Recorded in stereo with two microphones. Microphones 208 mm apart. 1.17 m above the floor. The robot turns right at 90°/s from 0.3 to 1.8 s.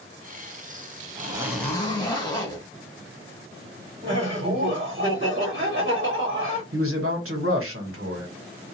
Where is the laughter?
45° right (ahead or behind), 1.4 m.